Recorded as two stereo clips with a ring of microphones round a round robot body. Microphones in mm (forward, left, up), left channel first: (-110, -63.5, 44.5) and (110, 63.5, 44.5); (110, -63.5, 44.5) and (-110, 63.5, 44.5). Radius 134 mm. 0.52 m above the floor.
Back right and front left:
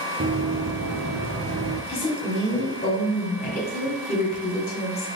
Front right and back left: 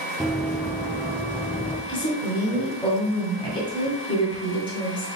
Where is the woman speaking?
95° right, 1.7 m.